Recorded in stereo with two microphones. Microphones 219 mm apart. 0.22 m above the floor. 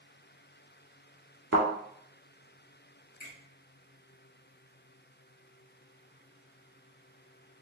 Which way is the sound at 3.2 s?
40° left (ahead or behind).